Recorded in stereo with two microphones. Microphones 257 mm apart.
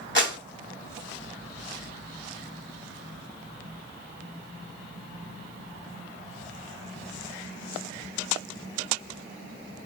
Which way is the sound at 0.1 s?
45° left (ahead or behind).